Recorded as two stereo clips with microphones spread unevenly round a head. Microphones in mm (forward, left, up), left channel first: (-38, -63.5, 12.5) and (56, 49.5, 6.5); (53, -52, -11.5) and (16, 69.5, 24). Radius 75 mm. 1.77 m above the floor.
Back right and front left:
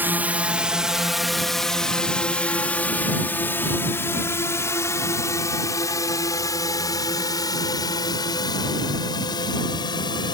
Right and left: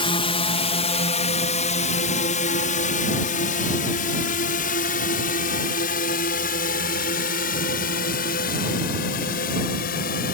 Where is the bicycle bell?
No bicycle bell in this recording.